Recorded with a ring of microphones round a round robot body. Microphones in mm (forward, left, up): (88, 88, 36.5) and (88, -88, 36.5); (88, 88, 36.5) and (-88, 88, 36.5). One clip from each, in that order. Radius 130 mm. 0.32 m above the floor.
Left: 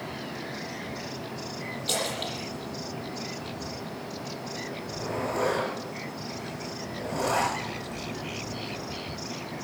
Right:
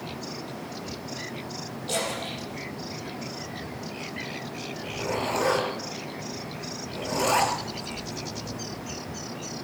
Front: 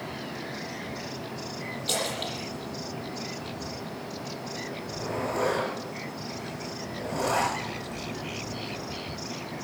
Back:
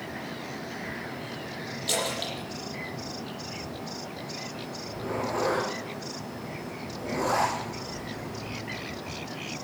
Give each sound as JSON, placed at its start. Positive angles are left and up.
{"t": 1.9, "sound": "a splash", "azimuth_deg": 110, "distance_m": 7.5}
{"t": 4.8, "sound": "a zipper", "azimuth_deg": -80, "distance_m": 5.0}